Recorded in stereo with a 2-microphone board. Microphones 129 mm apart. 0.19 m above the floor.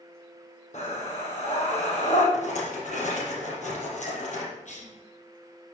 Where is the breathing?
65° left (ahead or behind), 4 m.